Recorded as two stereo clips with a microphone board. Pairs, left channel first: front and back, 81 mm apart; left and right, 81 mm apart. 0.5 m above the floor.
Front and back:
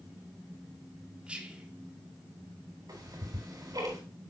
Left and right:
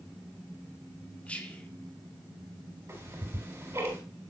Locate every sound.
1.3 s whispering: 135° left, 0.9 m
2.9 s ticking: 145° right, 4 m